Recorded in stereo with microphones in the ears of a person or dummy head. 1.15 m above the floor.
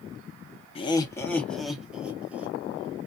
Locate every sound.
0.8 s laughter: 30° left (ahead or behind), 0.6 m; by 2.6 s 15° right (ahead or behind), 1.2 m